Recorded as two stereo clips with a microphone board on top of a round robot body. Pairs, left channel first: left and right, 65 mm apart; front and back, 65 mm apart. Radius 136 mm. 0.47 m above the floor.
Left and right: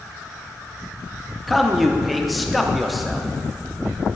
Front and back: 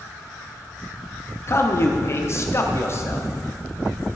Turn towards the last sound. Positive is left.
turn(degrees=0)